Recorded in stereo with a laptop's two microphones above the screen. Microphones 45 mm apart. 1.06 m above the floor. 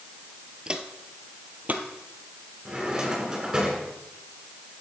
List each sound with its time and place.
0.7 s footsteps: 20° right (ahead or behind), 1.3 m; by 1.9 s 40° right (ahead or behind), 1.7 m
2.6 s a drawer: 15° right (ahead or behind), 6 m